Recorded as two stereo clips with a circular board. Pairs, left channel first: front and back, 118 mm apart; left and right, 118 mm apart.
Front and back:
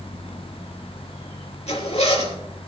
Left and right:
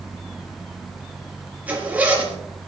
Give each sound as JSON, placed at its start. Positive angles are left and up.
{"t": 1.7, "sound": "a zipper", "azimuth_deg": -15, "distance_m": 3.5}